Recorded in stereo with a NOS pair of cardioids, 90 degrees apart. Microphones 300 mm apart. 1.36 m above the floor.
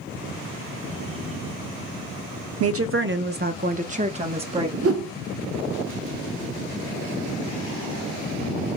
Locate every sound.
2.6 s a woman speaking: 55° right, 0.7 m; by 4.7 s 15° right, 1.8 m
4.8 s a whoosh: 50° right, 0.9 m